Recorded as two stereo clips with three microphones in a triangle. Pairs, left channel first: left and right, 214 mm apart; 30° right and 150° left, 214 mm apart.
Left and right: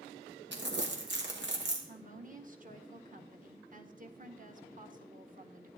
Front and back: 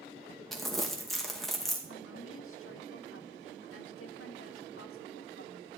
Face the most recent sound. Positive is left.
turn(degrees=-40)